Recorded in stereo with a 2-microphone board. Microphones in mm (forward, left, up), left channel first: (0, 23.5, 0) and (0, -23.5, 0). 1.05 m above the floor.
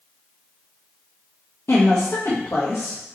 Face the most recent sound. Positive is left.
turn(degrees=70)  # may be behind; listen again after turning